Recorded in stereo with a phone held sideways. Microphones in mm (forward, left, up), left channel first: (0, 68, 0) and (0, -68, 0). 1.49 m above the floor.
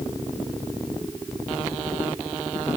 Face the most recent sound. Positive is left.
No sound to turn to.